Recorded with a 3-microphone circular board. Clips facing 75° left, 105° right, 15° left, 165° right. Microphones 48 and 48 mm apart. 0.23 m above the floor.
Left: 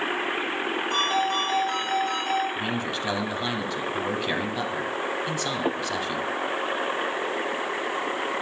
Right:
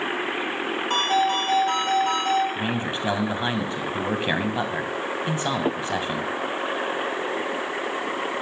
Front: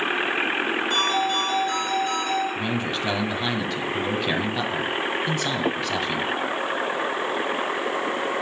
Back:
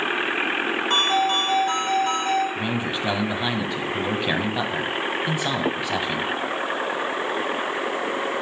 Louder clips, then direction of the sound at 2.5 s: Right 2 dB, even; 105° right.